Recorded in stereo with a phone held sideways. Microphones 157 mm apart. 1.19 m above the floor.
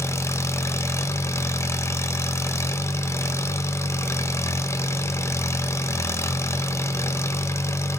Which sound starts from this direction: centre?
An engine running, at 0.0 s.